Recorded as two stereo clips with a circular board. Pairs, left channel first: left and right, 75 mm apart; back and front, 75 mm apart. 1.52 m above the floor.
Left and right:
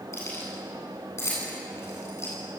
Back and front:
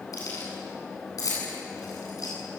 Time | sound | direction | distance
0.1 | keys jangling | 140° left | 9.5 m